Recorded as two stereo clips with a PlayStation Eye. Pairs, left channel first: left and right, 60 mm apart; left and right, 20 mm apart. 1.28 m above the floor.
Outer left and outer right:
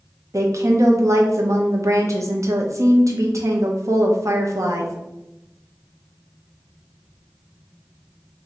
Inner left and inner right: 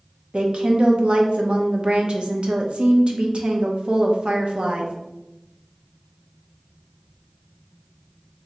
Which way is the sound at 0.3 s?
60° right (ahead or behind).